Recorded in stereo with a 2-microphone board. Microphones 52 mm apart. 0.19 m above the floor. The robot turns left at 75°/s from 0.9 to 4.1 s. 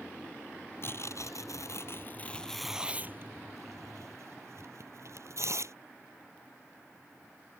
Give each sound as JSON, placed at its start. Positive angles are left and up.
{"t": 0.8, "sound": "tearing paper", "side_deg": 50}